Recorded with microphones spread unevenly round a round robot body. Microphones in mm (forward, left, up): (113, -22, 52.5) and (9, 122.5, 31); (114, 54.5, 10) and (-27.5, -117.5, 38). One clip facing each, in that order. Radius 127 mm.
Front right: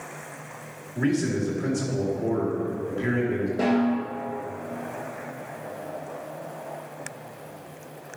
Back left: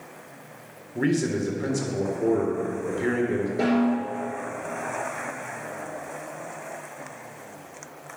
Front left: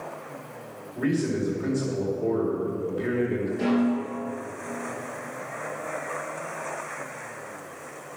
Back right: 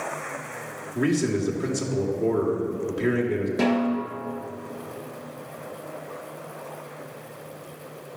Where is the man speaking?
175° left, 1.9 m.